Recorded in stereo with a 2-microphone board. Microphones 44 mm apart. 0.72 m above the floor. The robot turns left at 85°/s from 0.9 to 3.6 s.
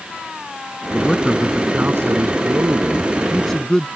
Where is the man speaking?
30° left; by 3.9 s 165° left.